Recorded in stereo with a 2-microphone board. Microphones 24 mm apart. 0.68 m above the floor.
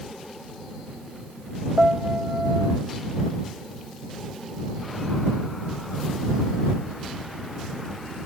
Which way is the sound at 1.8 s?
55° right (ahead or behind).